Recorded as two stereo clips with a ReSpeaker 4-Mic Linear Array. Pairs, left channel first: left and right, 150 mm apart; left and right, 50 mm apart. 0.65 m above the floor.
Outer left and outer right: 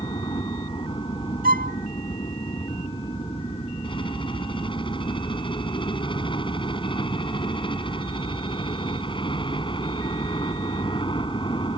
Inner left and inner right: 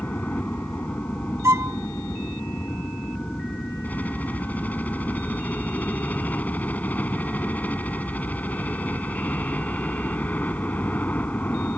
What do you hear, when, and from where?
0.0 s a helicopter: 35° left (ahead or behind)
1.4 s a violin: 80° right